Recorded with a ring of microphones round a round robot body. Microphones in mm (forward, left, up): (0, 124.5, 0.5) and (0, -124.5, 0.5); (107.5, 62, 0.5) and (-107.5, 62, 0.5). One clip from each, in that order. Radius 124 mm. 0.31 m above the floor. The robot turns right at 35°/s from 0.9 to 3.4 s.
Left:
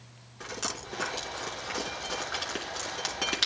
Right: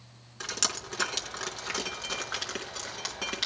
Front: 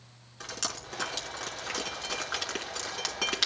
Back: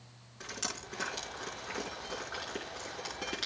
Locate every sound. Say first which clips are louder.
0.4 s dripping: right 5 dB, front 4 dB; 75° right, 4.5 m; by 3.5 s 15° left, 4.5 m